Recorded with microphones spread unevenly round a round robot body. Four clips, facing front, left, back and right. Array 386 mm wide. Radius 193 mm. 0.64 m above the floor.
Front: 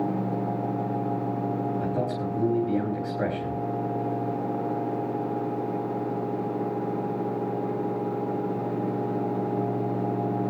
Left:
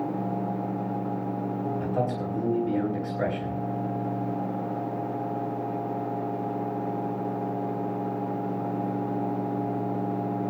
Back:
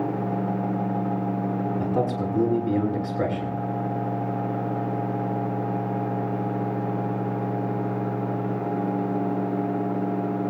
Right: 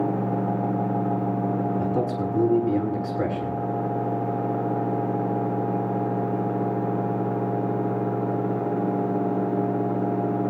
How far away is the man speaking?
About 6.5 m.